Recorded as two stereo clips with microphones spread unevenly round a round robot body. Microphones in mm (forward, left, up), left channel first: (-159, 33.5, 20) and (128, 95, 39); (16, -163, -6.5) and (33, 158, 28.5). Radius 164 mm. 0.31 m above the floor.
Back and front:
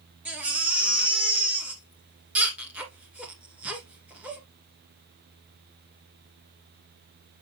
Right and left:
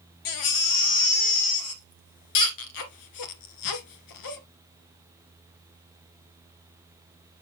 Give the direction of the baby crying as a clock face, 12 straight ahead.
2 o'clock.